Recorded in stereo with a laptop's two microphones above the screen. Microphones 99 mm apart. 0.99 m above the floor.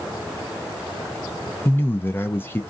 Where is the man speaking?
20° left (ahead or behind), 0.5 m.